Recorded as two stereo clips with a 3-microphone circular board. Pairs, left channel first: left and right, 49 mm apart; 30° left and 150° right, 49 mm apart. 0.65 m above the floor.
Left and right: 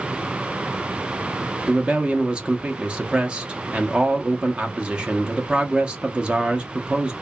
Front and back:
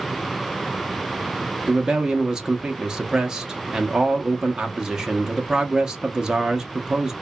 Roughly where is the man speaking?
Right.